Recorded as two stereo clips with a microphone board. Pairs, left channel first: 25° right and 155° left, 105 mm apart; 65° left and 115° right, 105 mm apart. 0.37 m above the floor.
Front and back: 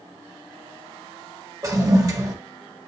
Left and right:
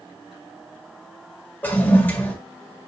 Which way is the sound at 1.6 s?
130° left.